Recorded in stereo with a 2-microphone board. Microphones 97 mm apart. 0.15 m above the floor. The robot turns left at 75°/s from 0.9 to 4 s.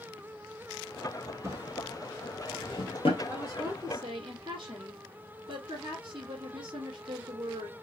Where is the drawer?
35° right (ahead or behind), 1.3 m; by 3.2 s 70° left (ahead or behind), 1.3 m.